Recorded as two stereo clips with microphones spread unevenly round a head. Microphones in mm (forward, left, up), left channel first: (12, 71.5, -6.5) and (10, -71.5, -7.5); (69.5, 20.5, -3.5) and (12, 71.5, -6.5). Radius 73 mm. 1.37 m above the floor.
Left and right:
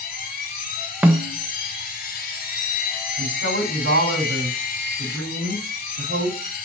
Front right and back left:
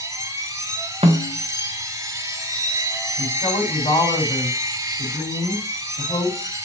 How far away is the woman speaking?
About 4.5 m.